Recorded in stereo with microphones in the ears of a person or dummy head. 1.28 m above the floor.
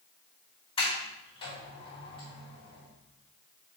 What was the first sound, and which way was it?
A sliding door, 25° left (ahead or behind).